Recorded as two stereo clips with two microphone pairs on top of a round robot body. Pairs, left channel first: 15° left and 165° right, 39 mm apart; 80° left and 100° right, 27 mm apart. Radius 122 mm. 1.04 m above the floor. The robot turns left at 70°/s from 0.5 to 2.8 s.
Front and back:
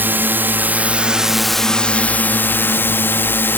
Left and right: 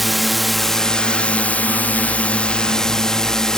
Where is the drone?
170° left; by 3.6 s 5° left.